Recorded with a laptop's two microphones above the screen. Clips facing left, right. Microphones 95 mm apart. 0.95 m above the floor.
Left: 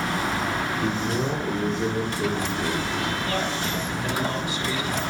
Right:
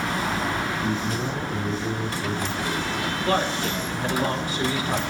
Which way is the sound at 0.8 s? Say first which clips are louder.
Left 1 dB; 50° left (ahead or behind).